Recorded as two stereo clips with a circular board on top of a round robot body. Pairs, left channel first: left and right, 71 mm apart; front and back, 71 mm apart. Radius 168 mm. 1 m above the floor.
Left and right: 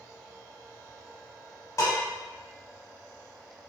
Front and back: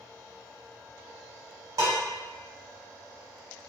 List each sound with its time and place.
1.8 s dishes clattering: 135° left, 1.1 m